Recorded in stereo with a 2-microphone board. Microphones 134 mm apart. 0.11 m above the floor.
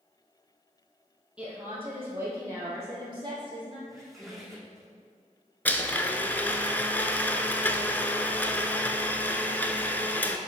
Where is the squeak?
Centre (ahead or behind), 1.5 m.